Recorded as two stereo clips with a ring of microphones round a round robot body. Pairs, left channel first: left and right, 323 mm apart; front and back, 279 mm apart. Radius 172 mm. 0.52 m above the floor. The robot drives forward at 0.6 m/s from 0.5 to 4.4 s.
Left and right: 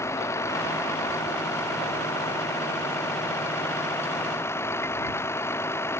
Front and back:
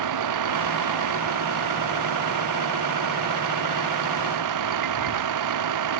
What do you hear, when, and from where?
0.0 s a vehicle: 170° left; by 6.0 s 175° left